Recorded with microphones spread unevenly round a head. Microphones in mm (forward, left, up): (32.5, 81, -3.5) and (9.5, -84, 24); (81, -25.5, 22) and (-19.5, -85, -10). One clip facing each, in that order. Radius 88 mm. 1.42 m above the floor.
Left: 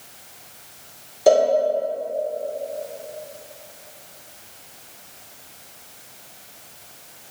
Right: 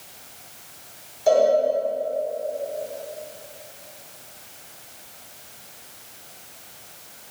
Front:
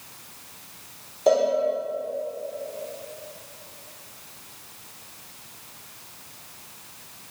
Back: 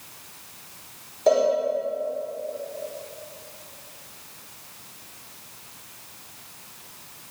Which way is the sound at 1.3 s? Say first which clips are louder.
Left 2 dB, even; 115° left.